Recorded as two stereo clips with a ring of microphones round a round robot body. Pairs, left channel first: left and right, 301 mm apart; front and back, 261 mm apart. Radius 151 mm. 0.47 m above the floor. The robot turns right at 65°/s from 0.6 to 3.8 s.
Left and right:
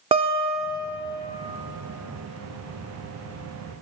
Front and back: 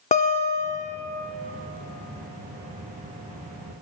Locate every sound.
0.1 s a guitar: 35° right, 0.8 m; by 1.0 s 10° right, 0.8 m